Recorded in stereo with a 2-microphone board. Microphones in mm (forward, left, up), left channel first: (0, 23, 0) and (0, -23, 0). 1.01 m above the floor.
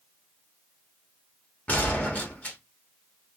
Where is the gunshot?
35° left (ahead or behind), 1.2 m.